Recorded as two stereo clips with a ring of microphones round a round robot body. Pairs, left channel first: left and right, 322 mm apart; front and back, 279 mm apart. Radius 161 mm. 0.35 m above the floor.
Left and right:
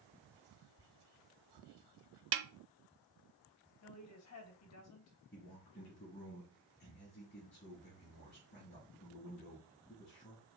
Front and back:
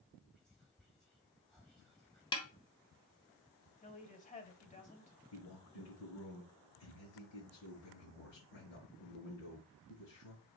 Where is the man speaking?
25° left, 5.5 m.